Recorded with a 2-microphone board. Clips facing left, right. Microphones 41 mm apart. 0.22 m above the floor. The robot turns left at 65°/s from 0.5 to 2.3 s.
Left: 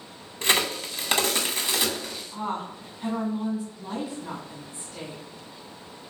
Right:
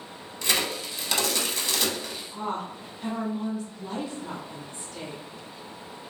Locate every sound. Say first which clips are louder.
0.4 s a crack: left 3 dB; 45° left (ahead or behind), 0.7 m; by 2.2 s centre (ahead or behind), 0.7 m
2.3 s a woman speaking: left 1 dB; 5° left (ahead or behind), 1.6 m